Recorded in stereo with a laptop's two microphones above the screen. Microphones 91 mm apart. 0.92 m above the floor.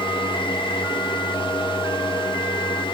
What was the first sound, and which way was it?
A fan, 65° left (ahead or behind).